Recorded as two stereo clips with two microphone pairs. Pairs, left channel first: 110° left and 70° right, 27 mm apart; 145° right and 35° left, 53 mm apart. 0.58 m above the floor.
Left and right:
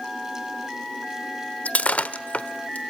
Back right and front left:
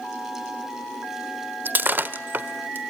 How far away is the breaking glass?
About 1.1 m.